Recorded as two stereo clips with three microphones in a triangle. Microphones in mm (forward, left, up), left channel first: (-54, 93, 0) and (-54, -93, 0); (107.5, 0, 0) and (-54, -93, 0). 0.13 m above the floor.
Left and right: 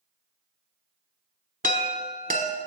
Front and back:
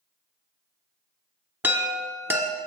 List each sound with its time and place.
1.6 s a chime: 75° right, 0.6 m